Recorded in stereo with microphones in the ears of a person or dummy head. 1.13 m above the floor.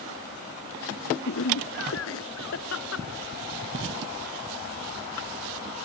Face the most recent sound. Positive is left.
turn(degrees=60)  # may be behind; listen again after turning